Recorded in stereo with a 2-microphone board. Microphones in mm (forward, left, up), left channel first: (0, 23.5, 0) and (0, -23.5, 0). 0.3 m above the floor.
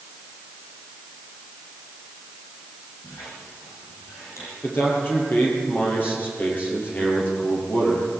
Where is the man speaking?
45° left (ahead or behind), 8.5 m.